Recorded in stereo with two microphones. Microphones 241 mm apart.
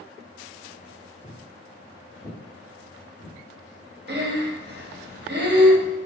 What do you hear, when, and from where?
1.2 s footsteps: 15° left (ahead or behind), 1.7 m; by 3.4 s 10° right (ahead or behind), 1.8 m
4.1 s breathing: 45° right (ahead or behind), 0.6 m